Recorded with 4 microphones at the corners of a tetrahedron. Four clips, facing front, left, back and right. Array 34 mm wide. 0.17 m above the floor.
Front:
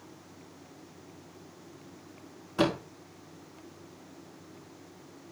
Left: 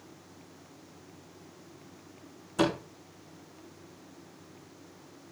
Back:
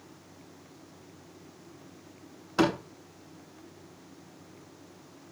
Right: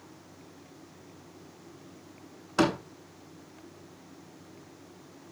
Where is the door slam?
115° right, 7 m.